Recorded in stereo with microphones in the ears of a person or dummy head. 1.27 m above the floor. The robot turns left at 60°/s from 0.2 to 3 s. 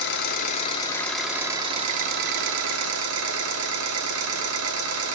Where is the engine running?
65° left, 0.9 m; by 5.2 s 105° right, 0.9 m.